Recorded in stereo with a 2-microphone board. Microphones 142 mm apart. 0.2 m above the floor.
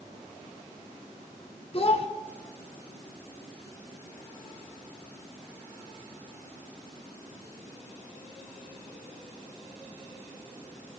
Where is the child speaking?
45° left (ahead or behind), 1.6 m.